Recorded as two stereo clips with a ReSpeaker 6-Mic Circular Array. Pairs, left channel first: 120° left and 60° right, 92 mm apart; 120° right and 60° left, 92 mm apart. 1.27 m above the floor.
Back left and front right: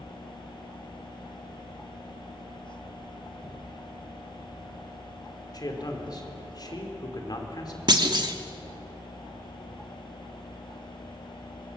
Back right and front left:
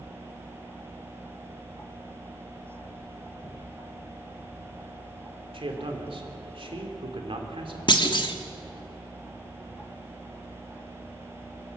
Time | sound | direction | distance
5.5 | a man speaking | 80° left | 3 m
7.9 | a clunk | 90° right | 1.4 m